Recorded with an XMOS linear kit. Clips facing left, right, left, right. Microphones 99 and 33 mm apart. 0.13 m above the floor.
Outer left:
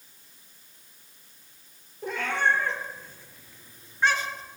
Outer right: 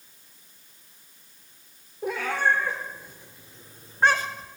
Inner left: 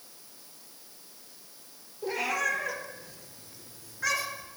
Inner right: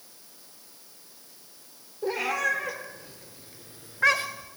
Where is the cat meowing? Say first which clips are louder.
Outer right 1 dB, inner right 2 dB; 5° right (ahead or behind), 1.6 m; by 4.5 s 45° right (ahead or behind), 0.7 m.